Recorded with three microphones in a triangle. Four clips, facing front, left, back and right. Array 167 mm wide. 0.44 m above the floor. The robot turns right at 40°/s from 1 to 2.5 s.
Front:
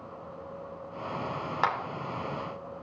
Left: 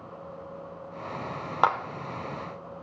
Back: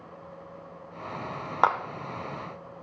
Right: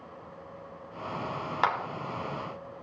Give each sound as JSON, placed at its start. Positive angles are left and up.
{"t": 1.6, "sound": "a clap", "azimuth_deg": 150, "distance_m": 1.2}